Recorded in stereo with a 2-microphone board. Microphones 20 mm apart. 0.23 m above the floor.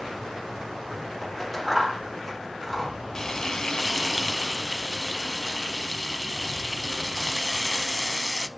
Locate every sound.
1.2 s scissors: 10° left (ahead or behind), 3.5 m
3.1 s frying: 25° left (ahead or behind), 0.7 m